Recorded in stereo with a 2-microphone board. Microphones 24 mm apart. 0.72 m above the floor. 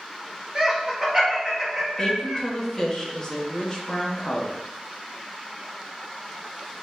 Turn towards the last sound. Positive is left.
turn(degrees=30)  # may be behind; listen again after turning